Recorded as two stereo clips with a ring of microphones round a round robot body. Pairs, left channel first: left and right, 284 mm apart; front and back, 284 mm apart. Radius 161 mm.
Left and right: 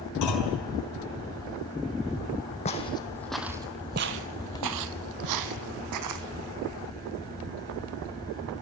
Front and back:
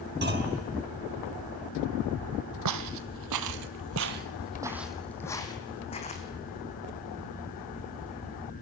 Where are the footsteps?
160° left, 1.2 m; by 6.2 s 70° right, 1.7 m.